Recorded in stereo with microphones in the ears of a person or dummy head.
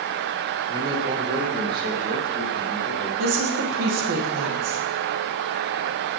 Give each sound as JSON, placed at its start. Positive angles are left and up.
{"t": 0.7, "sound": "a man speaking", "side_deg": -30, "distance_m": 1.3}
{"t": 3.2, "sound": "a woman speaking", "side_deg": -85, "distance_m": 2.0}